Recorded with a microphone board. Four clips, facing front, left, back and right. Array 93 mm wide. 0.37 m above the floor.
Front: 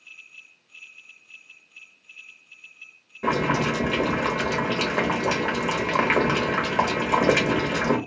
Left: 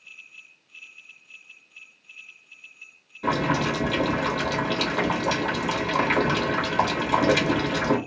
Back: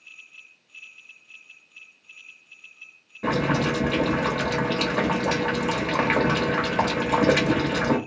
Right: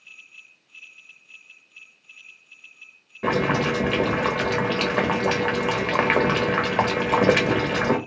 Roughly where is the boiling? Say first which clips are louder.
Right 2 dB, even; right.